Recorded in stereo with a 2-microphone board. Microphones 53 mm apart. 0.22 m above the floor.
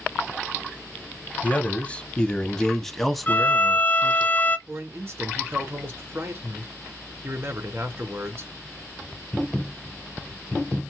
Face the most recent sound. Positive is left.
turn(degrees=-45)  # may be behind; listen again after turning